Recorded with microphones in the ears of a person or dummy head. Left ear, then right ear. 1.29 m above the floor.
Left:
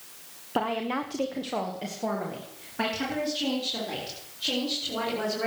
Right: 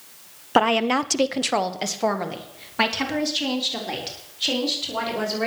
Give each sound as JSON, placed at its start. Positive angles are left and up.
{"t": 0.6, "sound": "a woman speaking", "side_deg": -50, "distance_m": 1.1}